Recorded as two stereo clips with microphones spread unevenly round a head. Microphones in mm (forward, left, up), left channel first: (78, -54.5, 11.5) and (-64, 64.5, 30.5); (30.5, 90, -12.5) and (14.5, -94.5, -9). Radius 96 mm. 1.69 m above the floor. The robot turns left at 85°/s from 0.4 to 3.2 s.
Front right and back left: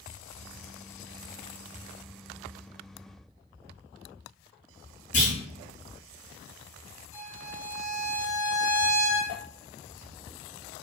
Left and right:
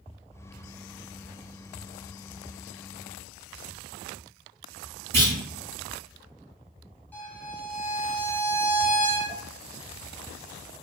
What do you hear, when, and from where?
5.1 s a clunk: 95° right, 1.4 m
7.1 s a violin: 5° left, 1.0 m